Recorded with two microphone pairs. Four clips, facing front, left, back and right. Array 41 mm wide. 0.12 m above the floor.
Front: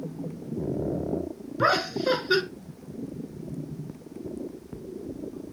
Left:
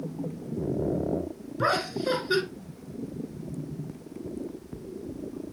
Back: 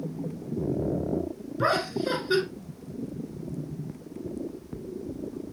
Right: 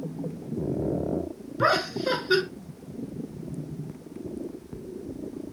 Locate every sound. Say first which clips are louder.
1.6 s laughter: right 3 dB, front 2 dB; 40° right, 1.2 m